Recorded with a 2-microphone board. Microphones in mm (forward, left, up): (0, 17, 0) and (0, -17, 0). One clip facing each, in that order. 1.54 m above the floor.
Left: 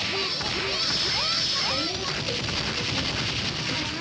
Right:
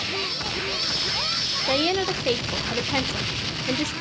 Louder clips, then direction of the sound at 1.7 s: Right 6 dB; 75° right (ahead or behind).